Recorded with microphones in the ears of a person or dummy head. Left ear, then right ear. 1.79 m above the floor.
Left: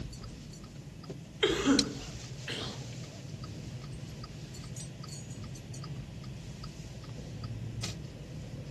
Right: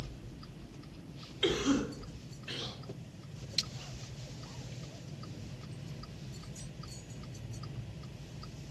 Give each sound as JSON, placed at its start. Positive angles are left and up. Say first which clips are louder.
{"t": 1.4, "sound": "a cough", "louder": "left 4 dB", "side_deg": 30, "distance_m": 1.2}